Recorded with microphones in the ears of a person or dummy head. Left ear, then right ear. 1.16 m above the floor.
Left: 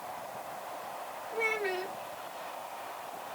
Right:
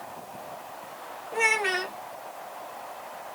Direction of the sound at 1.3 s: 40° right (ahead or behind).